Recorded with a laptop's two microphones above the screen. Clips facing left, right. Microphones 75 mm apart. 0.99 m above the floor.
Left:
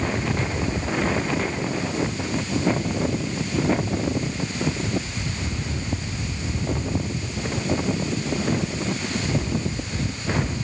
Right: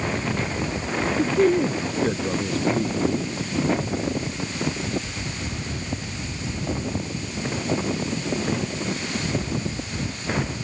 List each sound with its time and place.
1.2 s a man speaking: 70° right (ahead or behind)